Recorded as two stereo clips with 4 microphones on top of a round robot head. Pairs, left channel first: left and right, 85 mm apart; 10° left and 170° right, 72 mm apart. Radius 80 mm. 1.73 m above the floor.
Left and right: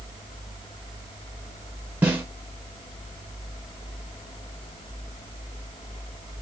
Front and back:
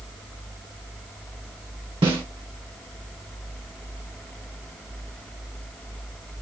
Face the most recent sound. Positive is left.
turn(degrees=-160)